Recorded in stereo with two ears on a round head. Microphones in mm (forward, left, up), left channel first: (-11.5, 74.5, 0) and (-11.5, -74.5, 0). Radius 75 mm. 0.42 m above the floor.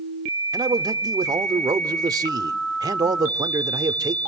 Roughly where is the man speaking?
Right.